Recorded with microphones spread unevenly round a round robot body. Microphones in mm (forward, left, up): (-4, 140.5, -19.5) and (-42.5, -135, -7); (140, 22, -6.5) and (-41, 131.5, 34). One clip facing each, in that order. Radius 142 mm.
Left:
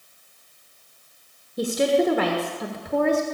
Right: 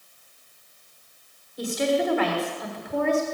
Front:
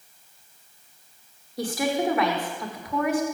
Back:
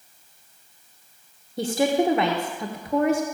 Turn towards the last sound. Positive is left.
turn(degrees=85)